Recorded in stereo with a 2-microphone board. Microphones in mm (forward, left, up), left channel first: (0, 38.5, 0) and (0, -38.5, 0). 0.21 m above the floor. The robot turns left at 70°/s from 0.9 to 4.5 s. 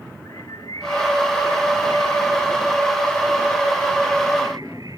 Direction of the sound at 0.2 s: 125° left.